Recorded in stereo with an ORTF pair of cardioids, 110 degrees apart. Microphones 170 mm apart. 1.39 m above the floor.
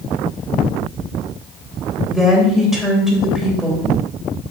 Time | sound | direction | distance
2.1 | a woman speaking | straight ahead | 2.5 m